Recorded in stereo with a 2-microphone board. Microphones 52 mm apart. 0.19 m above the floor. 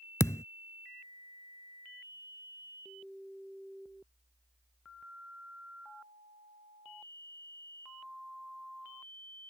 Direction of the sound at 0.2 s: 70° left (ahead or behind).